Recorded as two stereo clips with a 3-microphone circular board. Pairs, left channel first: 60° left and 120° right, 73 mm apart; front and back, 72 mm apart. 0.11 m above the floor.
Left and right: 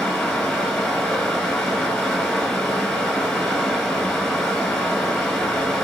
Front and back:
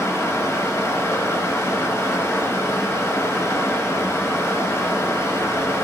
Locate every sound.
0.0 s running water: 20° right, 0.8 m